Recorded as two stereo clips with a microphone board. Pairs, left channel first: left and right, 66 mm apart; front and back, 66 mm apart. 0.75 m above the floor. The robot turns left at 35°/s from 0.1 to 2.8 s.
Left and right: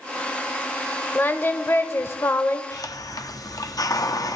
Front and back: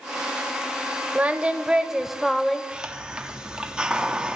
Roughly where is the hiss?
Left.